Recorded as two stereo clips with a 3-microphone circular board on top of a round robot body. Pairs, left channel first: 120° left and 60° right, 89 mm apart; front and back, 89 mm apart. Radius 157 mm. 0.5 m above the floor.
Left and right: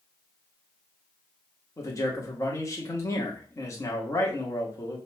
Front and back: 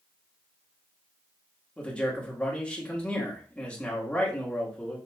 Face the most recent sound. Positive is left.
turn(degrees=75)